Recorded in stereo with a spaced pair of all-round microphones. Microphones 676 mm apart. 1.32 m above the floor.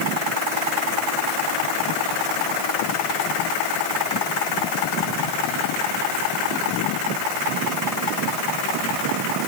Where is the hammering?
No hammering in this recording.